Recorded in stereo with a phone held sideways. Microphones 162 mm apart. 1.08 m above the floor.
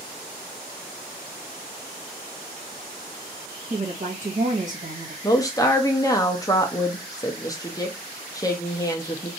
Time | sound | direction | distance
3.7 | a woman speaking | 50° right (ahead or behind) | 1.3 m
5.2 | a woman speaking | 20° left (ahead or behind) | 0.7 m